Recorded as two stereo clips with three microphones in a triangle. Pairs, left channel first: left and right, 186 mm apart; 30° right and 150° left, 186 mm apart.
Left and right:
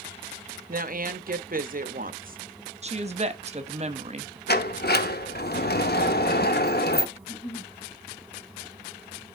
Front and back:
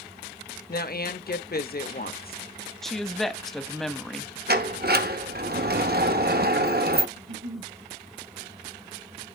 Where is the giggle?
160° left, 3.5 m.